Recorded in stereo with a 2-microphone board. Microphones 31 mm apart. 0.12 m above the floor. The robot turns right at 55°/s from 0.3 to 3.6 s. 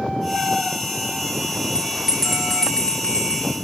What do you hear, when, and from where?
1.8 s a bell: 35° right, 8 m; by 3.4 s 55° left, 8 m